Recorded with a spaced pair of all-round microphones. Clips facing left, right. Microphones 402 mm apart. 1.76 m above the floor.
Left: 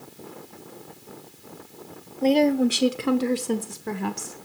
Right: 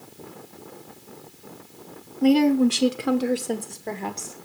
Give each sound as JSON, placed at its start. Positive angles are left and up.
{"t": 2.2, "sound": "a woman speaking", "side_deg": -25, "distance_m": 0.9}